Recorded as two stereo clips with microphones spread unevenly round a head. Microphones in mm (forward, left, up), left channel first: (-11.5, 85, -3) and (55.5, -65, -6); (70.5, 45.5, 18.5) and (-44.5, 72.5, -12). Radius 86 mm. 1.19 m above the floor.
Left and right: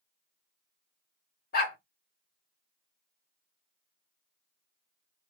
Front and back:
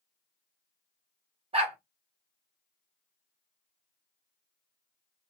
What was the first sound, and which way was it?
A dog barking, 125° left.